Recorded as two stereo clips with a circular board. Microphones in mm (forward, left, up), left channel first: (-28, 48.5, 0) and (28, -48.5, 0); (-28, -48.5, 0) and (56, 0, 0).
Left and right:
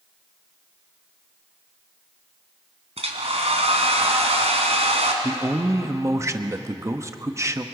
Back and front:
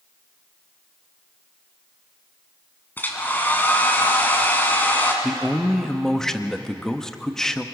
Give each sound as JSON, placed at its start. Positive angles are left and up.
{"t": 3.0, "sound": "a hair dryer", "azimuth_deg": -80, "distance_m": 2.5}
{"t": 5.2, "sound": "a man speaking", "azimuth_deg": -70, "distance_m": 1.0}